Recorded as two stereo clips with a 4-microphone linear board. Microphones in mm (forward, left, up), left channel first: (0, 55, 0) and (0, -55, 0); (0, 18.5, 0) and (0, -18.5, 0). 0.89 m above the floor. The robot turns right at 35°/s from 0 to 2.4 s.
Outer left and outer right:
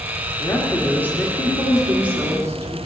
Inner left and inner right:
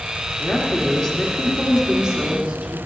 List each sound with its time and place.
0.4 s a woman speaking: 135° left, 1.8 m; by 2.8 s 150° right, 1.8 m